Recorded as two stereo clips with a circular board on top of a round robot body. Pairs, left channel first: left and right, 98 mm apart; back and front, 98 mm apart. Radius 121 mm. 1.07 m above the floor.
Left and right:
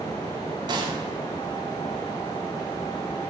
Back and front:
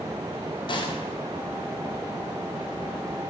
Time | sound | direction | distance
0.7 | a gunshot | 135° right | 1.4 m